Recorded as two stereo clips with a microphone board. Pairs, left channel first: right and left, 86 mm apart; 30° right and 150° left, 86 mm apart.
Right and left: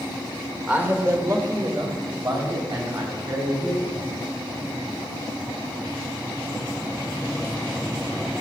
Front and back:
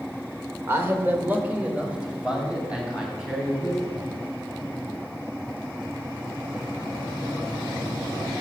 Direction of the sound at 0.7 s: 145° left.